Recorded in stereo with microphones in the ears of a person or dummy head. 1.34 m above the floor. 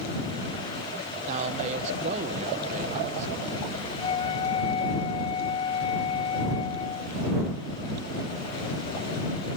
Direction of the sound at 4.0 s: 30° left (ahead or behind).